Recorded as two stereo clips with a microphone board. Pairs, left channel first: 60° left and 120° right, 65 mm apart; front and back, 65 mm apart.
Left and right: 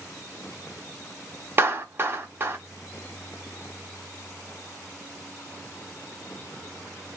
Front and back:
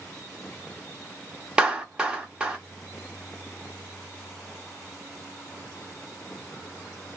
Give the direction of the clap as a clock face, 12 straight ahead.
4 o'clock.